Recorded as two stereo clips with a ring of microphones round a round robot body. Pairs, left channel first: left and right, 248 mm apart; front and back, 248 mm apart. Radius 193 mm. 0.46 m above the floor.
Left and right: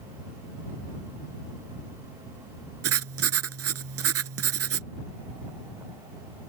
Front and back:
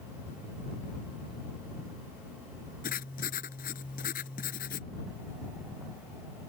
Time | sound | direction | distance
2.8 | writing | 65° right | ?